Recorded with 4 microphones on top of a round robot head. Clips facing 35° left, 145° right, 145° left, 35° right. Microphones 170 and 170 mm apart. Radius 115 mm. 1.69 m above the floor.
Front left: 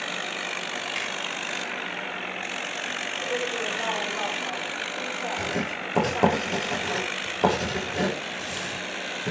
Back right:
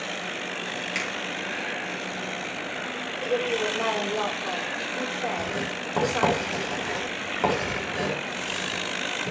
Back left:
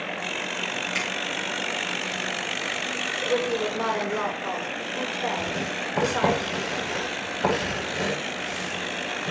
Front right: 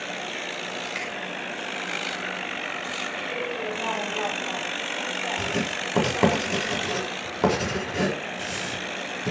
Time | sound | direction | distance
0.9 | a finger snap | 170° right | 9 m
3.2 | a woman speaking | 175° left | 6.5 m
5.4 | writing | 35° right | 6.5 m